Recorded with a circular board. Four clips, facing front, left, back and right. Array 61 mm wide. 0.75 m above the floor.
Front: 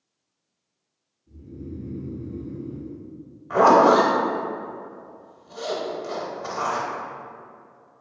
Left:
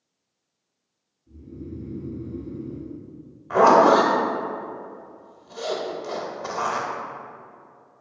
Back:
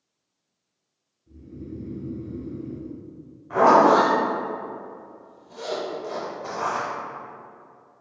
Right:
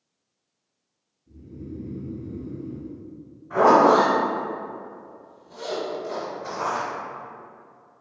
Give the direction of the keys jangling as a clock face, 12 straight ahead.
No keys jangling in this recording.